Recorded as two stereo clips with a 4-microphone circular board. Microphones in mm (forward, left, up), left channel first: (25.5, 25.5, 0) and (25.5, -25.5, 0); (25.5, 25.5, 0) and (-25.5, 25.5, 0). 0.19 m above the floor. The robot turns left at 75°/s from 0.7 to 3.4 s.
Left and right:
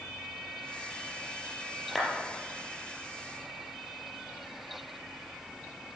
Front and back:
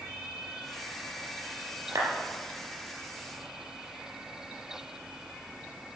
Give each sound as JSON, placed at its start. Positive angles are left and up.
{"t": 1.9, "sound": "a clap", "azimuth_deg": 175, "distance_m": 4.0}